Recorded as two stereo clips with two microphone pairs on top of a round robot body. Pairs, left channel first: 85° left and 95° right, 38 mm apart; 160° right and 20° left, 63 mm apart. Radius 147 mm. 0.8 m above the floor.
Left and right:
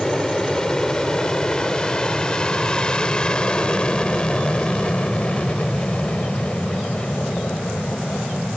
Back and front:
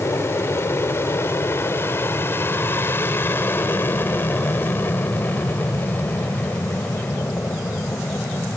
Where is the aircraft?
155° left; by 8.6 s 140° left.